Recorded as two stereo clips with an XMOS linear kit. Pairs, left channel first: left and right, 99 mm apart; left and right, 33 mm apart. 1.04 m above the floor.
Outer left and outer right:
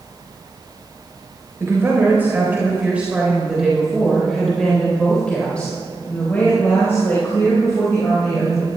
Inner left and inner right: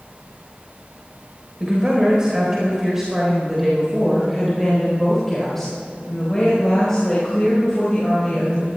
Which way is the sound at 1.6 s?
25° right (ahead or behind).